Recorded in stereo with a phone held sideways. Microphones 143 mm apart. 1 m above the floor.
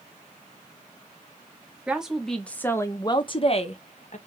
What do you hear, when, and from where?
1.9 s a woman speaking: 5° right (ahead or behind), 1.1 m; by 4.2 s 60° left (ahead or behind), 1.1 m